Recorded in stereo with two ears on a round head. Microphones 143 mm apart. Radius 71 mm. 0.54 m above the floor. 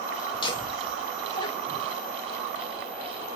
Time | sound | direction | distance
0.3 | laughter | 35° left (ahead or behind) | 5 m